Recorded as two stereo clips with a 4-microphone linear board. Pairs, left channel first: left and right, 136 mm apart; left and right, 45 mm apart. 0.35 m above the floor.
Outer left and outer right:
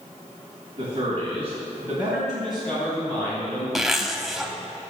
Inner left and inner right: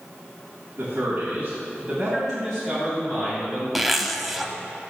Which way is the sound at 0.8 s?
35° right (ahead or behind).